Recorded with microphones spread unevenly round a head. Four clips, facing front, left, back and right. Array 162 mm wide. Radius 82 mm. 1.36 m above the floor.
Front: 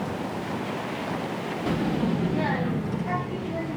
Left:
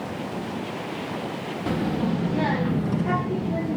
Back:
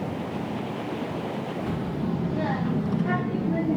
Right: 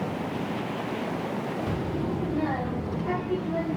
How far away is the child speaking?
About 1.7 m.